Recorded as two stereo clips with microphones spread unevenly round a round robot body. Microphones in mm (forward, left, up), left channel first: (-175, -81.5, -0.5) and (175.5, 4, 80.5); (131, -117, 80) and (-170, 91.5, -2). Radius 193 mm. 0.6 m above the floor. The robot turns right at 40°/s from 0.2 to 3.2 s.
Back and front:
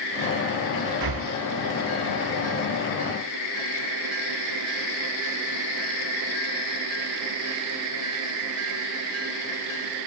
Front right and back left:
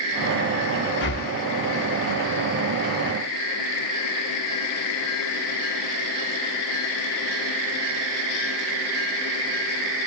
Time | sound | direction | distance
1.0 | breathing | 25° left | 1.0 m